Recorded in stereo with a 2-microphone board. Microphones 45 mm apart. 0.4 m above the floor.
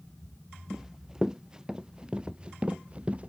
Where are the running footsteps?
10° right (ahead or behind); by 3.3 s 30° right (ahead or behind).